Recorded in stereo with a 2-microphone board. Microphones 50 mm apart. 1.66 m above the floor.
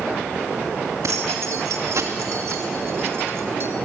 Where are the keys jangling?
80° right, 2.5 m; by 3.7 s 50° right (ahead or behind), 2 m.